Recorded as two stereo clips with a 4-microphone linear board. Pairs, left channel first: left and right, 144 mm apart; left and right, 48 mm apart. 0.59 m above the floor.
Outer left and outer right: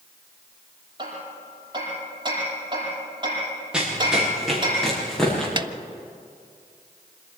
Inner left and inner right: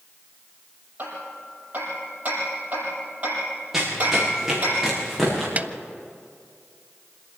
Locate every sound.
1.0 s hammering: 30° right (ahead or behind), 8.5 m
3.7 s running footsteps: 5° right (ahead or behind), 6 m; by 5.5 s 5° left (ahead or behind), 8 m
5.6 s a snare drum: 35° right (ahead or behind), 0.5 m